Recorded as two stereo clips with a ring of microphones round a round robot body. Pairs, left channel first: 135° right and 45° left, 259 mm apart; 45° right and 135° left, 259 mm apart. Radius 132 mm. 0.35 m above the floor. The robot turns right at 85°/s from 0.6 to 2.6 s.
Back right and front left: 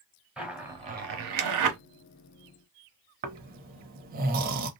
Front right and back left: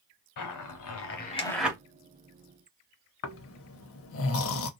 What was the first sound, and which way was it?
A zipper, 40° right.